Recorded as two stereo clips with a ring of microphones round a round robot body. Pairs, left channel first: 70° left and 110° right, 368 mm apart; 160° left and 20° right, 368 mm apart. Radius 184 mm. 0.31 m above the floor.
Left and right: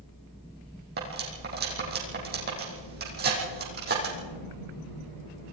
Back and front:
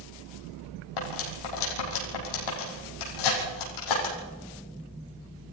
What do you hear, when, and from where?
1.0 s cutlery clinking: straight behind, 7.5 m